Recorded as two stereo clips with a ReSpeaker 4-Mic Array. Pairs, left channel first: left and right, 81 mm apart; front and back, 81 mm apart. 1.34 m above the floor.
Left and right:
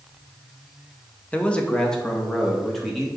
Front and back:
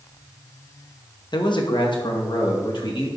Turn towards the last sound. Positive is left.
turn(degrees=0)